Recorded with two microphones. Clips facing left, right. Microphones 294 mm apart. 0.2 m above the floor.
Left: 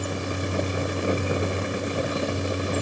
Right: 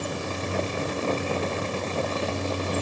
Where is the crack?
No crack in this recording.